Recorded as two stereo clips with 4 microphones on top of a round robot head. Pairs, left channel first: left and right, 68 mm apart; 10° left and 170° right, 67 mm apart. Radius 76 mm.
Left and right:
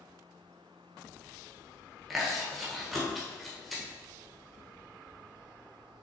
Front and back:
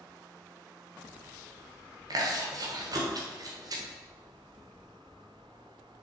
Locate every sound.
2.1 s chewing: straight behind, 1.4 m